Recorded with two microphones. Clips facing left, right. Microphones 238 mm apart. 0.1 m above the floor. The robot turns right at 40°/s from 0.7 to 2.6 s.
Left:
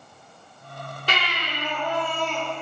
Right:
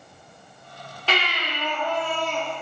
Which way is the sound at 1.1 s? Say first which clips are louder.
Right 4 dB; 15° left.